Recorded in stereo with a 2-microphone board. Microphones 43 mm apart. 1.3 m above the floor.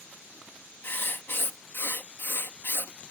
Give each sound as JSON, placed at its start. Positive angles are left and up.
{"t": 0.8, "sound": "writing", "side_deg": 55}